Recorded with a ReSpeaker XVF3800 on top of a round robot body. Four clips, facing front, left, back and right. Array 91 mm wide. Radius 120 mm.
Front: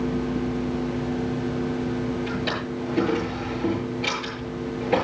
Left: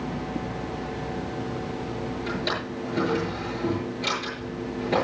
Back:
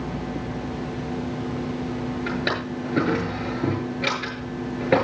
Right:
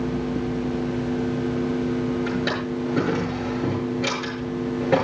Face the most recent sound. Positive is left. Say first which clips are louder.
# right 4 dB, back 1 dB
turn(degrees=-160)